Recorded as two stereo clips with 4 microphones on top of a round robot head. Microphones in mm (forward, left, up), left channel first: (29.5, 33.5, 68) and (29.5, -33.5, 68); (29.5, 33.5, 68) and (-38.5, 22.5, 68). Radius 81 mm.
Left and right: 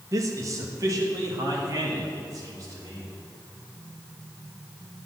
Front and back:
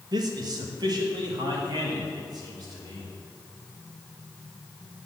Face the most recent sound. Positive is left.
turn(degrees=-140)